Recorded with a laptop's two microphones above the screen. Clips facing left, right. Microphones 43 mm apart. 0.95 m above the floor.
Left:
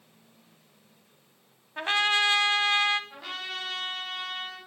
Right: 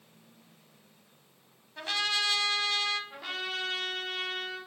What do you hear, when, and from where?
1.8 s a trumpet: 35° left (ahead or behind), 1.0 m
3.1 s a trumpet: centre (ahead or behind), 5 m